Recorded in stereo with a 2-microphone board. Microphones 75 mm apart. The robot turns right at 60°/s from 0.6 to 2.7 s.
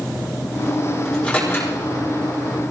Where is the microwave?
5° left (ahead or behind), 8.5 m; by 1.7 s 45° left (ahead or behind), 8.5 m.